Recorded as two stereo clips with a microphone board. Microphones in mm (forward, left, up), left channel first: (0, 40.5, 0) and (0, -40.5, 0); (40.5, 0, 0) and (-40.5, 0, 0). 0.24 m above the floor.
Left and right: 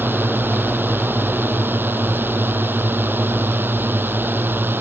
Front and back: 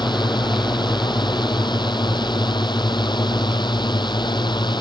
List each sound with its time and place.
0.0 s a drone: 25° right